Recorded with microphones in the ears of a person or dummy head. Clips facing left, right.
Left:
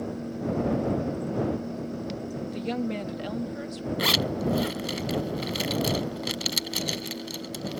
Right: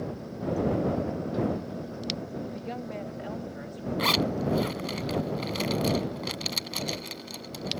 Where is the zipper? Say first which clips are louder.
Right 1 dB; 15° left (ahead or behind).